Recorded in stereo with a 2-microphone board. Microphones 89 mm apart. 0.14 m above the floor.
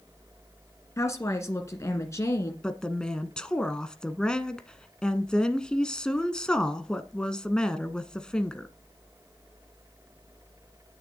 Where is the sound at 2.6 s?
10° left (ahead or behind), 1.1 m.